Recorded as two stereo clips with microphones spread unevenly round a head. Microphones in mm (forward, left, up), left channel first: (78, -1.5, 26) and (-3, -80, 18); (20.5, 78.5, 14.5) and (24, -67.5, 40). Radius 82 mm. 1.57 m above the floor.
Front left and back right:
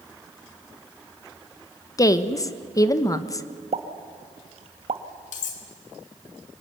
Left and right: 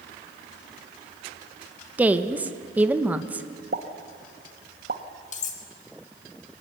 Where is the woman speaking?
15° right, 1.2 m.